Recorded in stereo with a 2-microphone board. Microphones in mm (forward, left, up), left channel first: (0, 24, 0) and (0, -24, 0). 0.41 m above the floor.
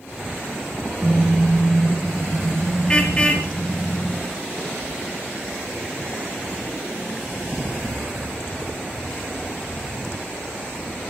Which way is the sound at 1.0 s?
Centre (ahead or behind).